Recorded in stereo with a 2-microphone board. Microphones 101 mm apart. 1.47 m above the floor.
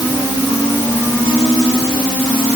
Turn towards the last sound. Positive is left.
No sound to turn to.